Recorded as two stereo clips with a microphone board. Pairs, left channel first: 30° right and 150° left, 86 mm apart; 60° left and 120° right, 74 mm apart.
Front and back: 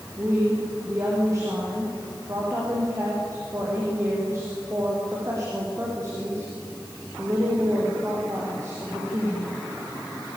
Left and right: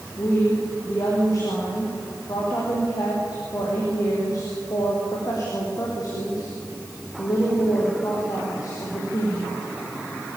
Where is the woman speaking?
95° left, 7.5 m.